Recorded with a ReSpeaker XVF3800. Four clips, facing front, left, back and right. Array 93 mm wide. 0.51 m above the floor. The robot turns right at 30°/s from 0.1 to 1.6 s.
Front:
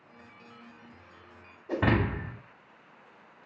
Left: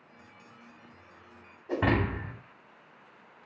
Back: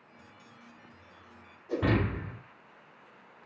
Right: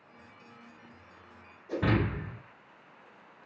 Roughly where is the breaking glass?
Ahead left.